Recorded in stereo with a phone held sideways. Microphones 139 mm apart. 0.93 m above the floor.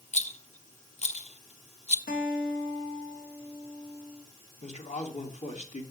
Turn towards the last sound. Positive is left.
turn(degrees=55)  # may be behind; listen again after turning